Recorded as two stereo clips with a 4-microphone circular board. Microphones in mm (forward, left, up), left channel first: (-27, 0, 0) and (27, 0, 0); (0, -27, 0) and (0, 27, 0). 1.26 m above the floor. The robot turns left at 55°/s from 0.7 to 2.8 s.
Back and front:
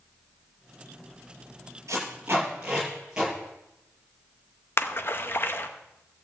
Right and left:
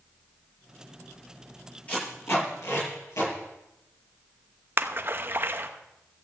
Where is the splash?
135° left, 0.9 m.